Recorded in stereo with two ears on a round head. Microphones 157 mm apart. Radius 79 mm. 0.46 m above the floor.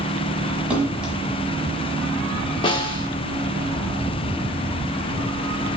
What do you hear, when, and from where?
0.7 s a splash: 5° right (ahead or behind), 1.2 m
2.6 s a snare drum: 30° left (ahead or behind), 0.8 m